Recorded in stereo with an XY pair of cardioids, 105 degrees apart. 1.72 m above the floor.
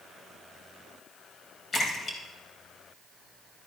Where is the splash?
40° left, 3 m.